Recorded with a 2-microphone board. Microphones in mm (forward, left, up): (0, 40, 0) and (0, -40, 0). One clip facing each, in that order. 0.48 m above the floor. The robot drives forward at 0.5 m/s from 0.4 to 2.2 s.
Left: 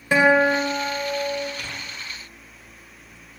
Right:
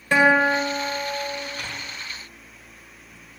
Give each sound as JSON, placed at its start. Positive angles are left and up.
{"t": 0.1, "sound": "a guitar", "side_deg": 10, "distance_m": 1.4}
{"t": 1.6, "sound": "tearing paper", "side_deg": -40, "distance_m": 1.8}